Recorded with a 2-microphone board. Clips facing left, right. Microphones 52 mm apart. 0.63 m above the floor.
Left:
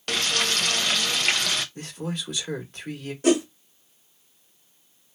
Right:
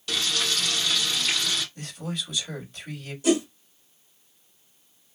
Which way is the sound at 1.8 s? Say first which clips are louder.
Left 2 dB; 65° left (ahead or behind).